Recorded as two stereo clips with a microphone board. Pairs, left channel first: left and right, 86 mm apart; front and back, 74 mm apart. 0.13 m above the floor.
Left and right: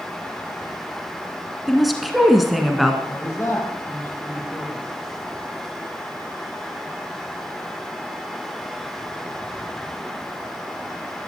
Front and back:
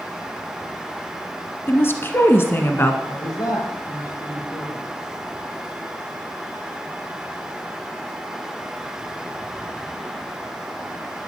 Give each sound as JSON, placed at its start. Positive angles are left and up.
{"t": 1.7, "sound": "a woman speaking", "azimuth_deg": 0, "distance_m": 1.4}
{"t": 3.1, "sound": "a man speaking", "azimuth_deg": 25, "distance_m": 5.5}